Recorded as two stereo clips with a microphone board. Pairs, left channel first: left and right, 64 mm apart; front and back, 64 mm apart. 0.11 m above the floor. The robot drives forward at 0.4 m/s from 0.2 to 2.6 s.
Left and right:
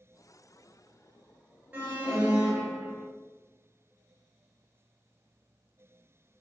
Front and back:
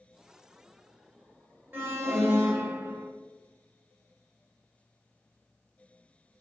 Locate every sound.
1.7 s an alarm: 140° right, 1.1 m; by 3.1 s 155° right, 1.3 m